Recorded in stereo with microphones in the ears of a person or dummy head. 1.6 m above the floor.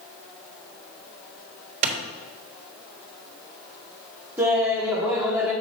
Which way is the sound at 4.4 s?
20° right (ahead or behind).